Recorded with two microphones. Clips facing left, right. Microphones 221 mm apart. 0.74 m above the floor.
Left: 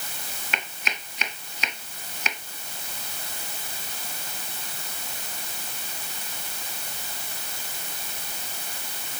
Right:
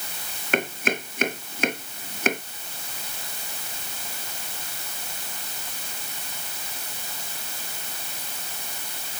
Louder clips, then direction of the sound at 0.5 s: Right 13 dB; 50° right (ahead or behind).